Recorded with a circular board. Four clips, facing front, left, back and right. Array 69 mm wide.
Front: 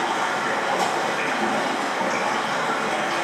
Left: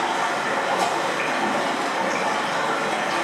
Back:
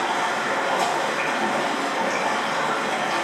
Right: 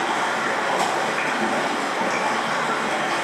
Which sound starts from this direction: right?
Running water, at 0.0 s.